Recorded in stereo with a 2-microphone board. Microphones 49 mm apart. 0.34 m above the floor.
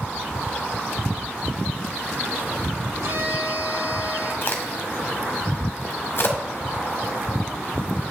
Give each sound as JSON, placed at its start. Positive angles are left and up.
{"t": 3.0, "sound": "a violin", "side_deg": -80, "distance_m": 4.0}
{"t": 4.4, "sound": "a crack", "side_deg": 55, "distance_m": 1.5}